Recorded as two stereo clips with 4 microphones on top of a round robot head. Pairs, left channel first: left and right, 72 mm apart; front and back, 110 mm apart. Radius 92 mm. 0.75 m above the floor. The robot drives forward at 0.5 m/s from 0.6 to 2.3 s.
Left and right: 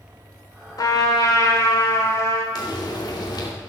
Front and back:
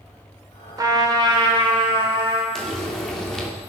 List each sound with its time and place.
0.8 s a trumpet: 125° left, 1.8 m; by 2.5 s 140° left, 2.5 m
2.5 s frying: 85° left, 2.5 m